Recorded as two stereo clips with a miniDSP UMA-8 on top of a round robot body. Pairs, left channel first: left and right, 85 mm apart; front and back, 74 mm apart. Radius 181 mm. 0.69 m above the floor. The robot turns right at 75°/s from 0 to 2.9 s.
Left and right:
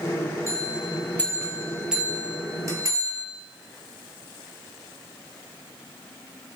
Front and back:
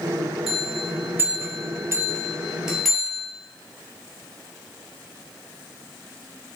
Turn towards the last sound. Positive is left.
turn(degrees=-90)